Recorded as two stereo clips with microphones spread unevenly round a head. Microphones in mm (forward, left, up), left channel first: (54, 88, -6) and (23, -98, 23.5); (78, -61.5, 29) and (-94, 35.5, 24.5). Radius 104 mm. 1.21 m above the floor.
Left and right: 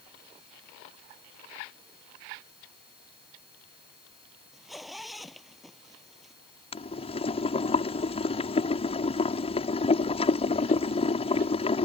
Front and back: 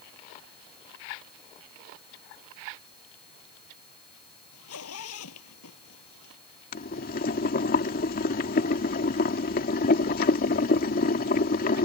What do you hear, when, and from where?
4.5 s a zipper: 10° right
6.7 s boiling: 20° left